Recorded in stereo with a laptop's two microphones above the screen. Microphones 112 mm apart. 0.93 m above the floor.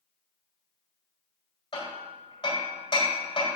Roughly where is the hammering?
Left.